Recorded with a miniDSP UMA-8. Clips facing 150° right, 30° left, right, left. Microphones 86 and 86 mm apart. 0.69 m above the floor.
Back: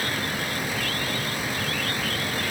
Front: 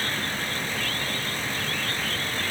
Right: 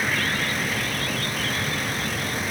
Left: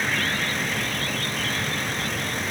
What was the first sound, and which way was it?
Only background noise.